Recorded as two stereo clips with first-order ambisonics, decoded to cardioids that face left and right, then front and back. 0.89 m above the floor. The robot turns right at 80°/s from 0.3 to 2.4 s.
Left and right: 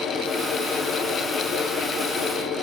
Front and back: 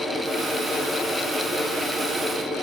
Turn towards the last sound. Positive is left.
No sound to turn to.